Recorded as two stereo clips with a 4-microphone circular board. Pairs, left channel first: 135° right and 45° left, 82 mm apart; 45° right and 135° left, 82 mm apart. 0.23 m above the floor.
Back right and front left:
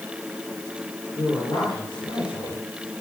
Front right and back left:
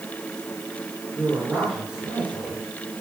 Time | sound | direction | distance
1.2 | a man speaking | 145° right | 5 m